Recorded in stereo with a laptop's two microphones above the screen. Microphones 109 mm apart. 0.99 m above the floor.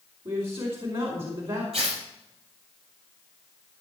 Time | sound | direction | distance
0.2 | a man speaking | 60° right (ahead or behind) | 4 m
1.7 | tearing paper | 85° right | 6 m